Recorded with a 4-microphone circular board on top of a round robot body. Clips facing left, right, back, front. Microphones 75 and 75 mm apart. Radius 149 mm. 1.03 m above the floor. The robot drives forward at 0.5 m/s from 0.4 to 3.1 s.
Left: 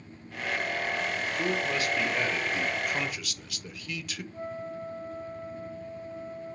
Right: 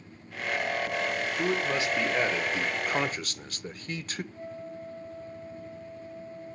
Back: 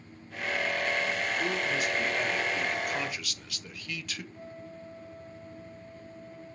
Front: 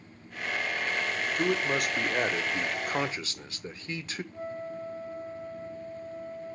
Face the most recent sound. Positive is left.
turn(degrees=50)